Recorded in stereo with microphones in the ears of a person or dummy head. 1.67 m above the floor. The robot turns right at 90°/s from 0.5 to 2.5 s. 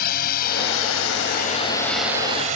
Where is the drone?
50° left (ahead or behind); by 2.6 s 45° right (ahead or behind).